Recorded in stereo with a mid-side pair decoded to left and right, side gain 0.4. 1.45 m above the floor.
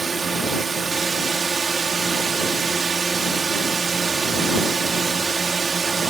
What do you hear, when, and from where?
0.0 s a drone: 40° right